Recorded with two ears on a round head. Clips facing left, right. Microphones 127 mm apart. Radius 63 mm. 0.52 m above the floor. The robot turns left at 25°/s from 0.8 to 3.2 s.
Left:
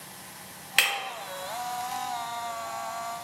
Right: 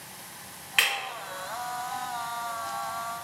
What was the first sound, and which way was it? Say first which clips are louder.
Breaking glass: even; 50° left (ahead or behind).